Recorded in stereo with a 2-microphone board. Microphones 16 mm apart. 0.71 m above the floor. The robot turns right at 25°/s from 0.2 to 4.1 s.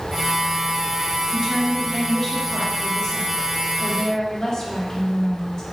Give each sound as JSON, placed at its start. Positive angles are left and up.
{"t": 1.3, "sound": "a woman speaking", "azimuth_deg": -25, "distance_m": 1.1}